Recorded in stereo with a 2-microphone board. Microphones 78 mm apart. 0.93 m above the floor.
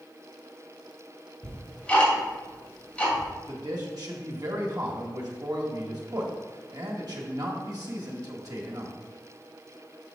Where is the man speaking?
55° right (ahead or behind), 1.9 m.